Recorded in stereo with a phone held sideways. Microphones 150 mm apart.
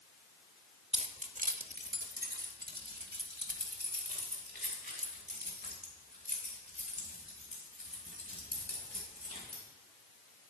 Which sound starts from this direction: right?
Keys jangling, at 0.9 s.